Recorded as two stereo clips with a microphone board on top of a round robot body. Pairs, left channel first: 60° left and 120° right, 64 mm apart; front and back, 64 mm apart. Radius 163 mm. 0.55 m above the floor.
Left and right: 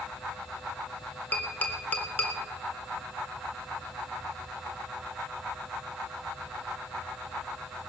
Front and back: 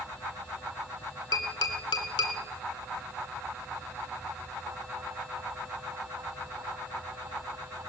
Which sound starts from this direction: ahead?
Tapping, at 1.3 s.